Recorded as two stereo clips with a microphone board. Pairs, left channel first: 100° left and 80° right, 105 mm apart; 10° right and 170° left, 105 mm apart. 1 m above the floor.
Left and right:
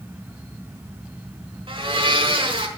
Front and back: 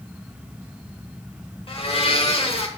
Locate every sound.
1.7 s a blender: 40° right, 1.5 m